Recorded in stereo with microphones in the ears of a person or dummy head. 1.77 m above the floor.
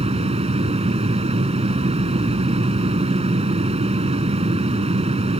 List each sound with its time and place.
0.0 s a fan: 25° right (ahead or behind)